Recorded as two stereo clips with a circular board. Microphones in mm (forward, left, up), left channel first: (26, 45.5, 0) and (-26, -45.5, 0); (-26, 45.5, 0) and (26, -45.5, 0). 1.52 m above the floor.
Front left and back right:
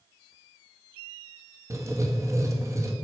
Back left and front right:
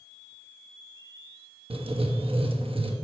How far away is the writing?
About 1.4 m.